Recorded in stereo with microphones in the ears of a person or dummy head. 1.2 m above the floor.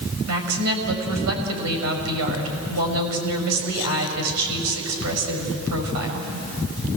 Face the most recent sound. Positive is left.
turn(degrees=-85)